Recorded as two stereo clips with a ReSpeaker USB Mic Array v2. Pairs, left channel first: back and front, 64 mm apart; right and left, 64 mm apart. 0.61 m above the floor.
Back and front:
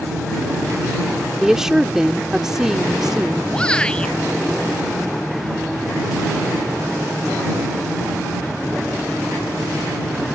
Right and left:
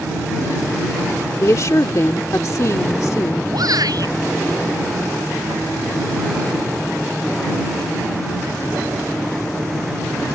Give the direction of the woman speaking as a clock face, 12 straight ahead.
3 o'clock.